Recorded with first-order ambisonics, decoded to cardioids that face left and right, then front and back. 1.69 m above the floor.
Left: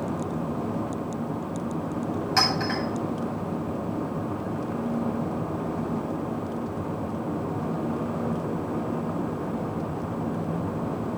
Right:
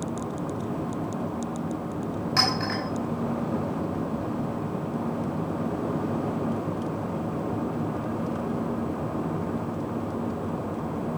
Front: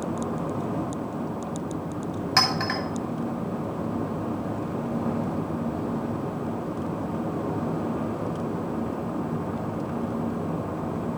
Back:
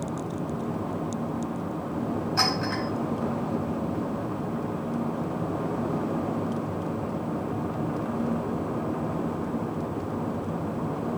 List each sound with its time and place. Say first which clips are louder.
2.4 s a clink: left 1 dB, front 4 dB; 5° left, 6 m